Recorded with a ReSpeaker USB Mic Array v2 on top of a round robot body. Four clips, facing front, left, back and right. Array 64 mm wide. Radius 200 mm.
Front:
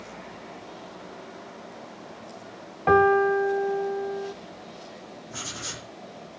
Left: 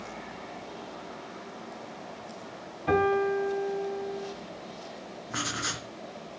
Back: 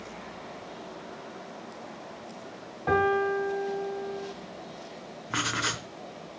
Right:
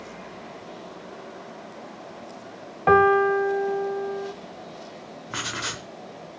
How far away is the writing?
About 0.5 m.